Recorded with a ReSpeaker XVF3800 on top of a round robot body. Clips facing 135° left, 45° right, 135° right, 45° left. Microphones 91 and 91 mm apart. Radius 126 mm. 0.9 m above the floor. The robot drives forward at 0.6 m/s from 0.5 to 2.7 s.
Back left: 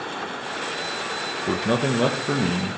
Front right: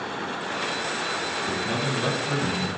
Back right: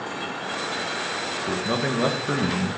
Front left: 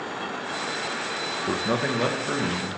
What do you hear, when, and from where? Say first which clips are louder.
1.5 s a man speaking: back left 8 dB, even; 115° left, 0.7 m; by 2.8 s 155° left, 1.1 m